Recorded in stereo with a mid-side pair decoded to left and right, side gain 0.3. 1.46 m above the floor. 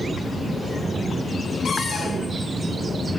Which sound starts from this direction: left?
A cupboard door, at 1.6 s.